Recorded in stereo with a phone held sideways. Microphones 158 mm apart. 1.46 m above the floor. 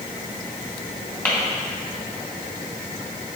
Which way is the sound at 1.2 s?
15° left (ahead or behind).